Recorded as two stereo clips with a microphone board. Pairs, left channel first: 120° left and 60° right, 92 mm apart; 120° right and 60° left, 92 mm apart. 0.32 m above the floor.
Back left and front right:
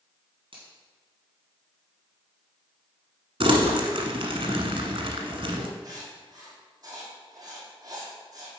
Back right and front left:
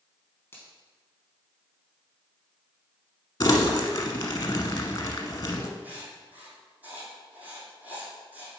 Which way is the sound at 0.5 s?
55° right.